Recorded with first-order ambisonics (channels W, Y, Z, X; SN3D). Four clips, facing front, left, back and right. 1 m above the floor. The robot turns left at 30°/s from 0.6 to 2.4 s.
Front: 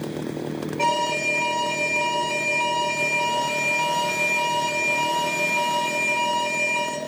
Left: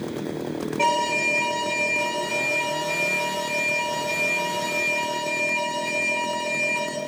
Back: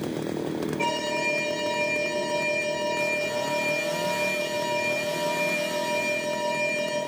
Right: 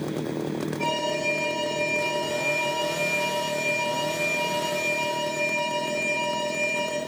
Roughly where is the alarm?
Ahead left.